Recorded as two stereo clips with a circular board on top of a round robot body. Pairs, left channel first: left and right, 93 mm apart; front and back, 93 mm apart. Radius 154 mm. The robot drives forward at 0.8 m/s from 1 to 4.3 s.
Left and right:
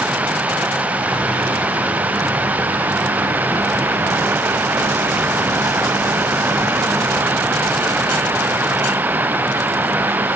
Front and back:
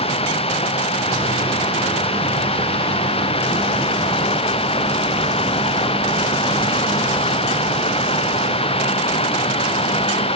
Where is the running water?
15° right; by 10.4 s 20° right.